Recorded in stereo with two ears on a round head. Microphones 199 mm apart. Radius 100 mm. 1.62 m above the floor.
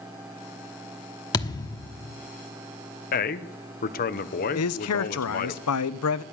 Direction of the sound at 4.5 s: 75° left (ahead or behind).